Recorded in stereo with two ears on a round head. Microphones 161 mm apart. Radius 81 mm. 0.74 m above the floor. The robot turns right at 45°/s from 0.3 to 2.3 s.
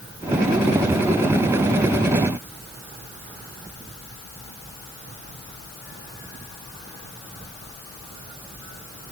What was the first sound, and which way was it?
Only background noise.